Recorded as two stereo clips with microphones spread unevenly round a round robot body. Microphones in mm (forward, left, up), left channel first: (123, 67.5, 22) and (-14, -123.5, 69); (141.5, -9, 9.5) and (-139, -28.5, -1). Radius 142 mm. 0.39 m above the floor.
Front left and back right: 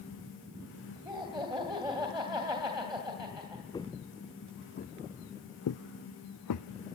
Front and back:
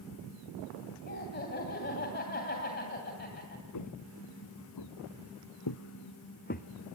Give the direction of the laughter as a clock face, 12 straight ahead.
2 o'clock.